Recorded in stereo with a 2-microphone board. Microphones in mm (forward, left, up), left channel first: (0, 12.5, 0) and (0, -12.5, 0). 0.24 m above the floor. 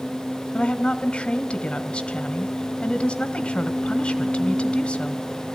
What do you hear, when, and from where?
0.5 s a woman speaking: 55° left (ahead or behind), 1.8 m